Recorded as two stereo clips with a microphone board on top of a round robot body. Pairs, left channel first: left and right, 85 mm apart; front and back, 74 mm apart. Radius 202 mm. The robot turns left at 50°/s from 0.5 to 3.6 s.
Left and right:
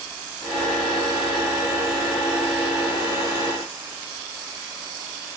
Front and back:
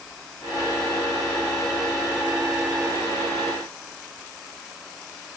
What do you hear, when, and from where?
Only background noise.